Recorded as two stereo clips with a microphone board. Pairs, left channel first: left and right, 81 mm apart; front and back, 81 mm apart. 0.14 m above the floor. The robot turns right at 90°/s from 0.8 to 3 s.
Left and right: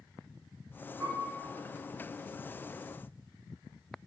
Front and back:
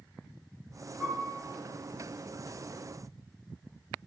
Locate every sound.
1.0 s a piano: 140° right, 1.8 m; by 1.3 s 110° right, 1.8 m